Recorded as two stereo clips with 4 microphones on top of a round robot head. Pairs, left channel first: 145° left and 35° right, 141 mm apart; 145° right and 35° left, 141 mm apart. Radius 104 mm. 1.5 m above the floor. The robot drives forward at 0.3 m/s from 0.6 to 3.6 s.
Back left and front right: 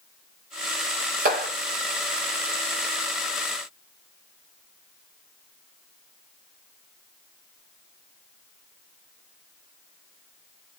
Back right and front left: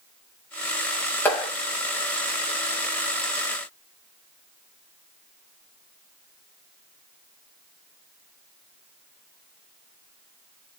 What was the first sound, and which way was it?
A clap, 65° right.